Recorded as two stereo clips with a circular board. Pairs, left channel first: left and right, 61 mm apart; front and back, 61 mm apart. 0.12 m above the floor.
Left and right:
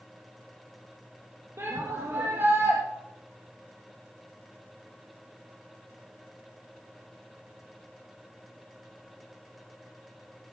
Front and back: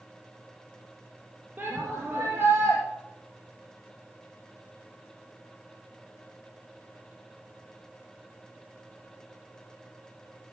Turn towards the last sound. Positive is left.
turn(degrees=-115)